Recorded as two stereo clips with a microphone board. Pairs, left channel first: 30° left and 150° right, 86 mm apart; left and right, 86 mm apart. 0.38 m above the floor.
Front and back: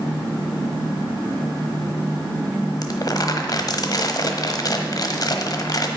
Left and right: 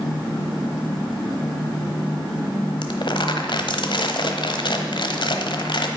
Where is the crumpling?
70° left, 1.1 m.